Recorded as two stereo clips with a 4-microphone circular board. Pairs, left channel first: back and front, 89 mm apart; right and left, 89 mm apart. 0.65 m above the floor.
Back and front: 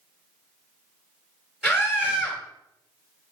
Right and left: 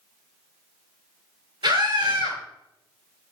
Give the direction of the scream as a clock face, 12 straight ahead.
9 o'clock.